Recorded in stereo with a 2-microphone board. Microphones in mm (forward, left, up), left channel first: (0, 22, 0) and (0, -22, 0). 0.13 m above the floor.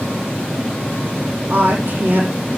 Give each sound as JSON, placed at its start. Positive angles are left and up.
{"t": 1.5, "sound": "a woman speaking", "side_deg": -45, "distance_m": 5.0}